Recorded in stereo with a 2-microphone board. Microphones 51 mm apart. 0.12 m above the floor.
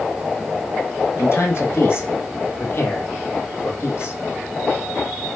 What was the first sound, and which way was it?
A man speaking, 50° left (ahead or behind).